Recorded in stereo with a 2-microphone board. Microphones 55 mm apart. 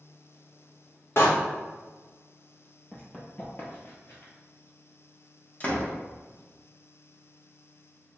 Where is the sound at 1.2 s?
50° left (ahead or behind), 0.9 m.